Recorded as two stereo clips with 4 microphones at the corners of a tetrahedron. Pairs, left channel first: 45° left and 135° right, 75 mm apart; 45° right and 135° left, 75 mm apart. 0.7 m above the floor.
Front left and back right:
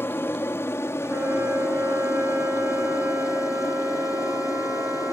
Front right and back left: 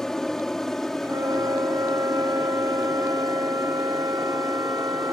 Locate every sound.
0.0 s an aircraft: 35° left; by 5.1 s 45° left
1.0 s a flute: 170° left